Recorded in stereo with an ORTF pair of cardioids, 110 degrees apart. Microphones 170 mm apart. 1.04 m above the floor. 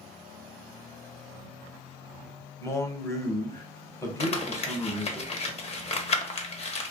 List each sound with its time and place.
2.6 s a man speaking: 15° left, 0.8 m
4.2 s crumpling: 40° left, 0.7 m